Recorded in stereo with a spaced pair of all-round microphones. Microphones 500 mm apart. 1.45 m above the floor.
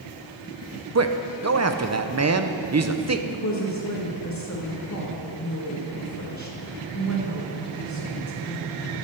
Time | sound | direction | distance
0.9 | a man speaking | 30° right (ahead or behind) | 0.7 m
3.3 | a woman speaking | 35° left (ahead or behind) | 2.0 m